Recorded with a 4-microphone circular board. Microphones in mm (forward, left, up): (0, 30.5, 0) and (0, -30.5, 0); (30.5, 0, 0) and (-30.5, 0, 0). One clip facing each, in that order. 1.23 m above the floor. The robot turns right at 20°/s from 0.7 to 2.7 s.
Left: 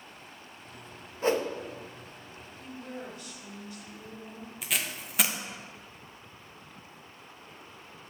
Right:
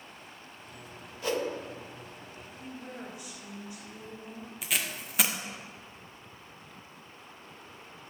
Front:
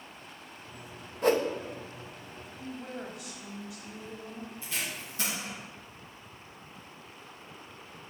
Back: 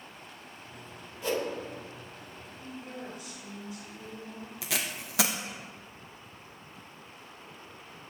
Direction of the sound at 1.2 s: 35° left.